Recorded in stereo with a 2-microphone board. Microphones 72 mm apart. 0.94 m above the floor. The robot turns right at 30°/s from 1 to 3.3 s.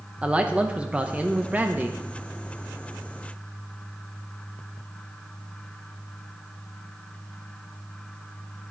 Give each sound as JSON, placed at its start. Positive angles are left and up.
{"t": 0.2, "sound": "a man speaking", "side_deg": -15, "distance_m": 0.6}